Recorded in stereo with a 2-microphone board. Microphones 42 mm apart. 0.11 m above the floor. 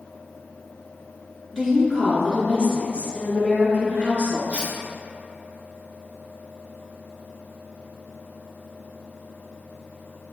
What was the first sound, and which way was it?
A woman speaking, 10° left (ahead or behind).